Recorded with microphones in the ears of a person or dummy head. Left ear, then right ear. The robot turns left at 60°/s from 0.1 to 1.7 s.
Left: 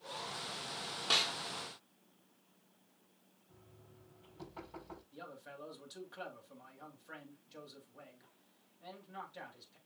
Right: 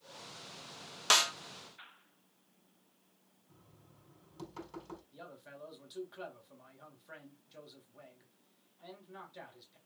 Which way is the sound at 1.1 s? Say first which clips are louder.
Right 4 dB; 50° right (ahead or behind).